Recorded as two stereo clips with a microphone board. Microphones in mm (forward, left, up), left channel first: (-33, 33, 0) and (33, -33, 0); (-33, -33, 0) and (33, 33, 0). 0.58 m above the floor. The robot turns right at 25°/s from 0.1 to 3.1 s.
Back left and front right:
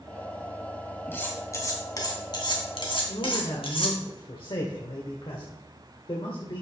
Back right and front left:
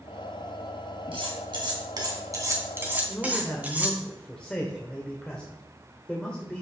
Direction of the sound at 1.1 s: 70° left.